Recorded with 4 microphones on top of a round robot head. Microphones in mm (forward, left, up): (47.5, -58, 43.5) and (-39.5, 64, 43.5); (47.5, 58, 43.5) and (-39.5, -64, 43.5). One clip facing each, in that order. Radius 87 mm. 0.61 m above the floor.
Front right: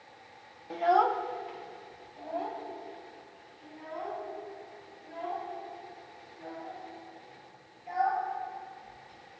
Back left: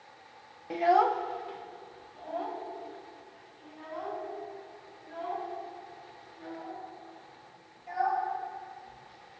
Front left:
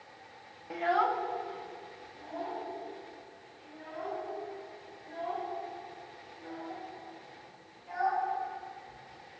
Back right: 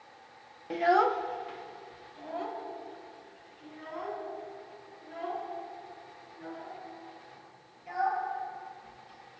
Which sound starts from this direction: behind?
A child speaking, at 0.7 s.